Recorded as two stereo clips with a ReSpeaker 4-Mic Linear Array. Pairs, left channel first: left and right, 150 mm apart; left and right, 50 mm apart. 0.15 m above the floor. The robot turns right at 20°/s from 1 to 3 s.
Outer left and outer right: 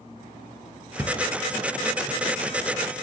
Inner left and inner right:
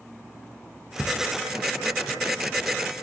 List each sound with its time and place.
1.0 s a drawer: 20° right (ahead or behind), 2.0 m; by 1.2 s 15° right (ahead or behind), 2.0 m